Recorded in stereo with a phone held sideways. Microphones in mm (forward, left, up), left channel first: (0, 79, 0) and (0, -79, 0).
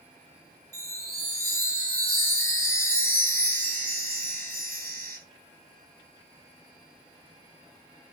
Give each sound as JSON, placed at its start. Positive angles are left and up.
{"t": 0.7, "sound": "a chime", "side_deg": -70, "distance_m": 2.5}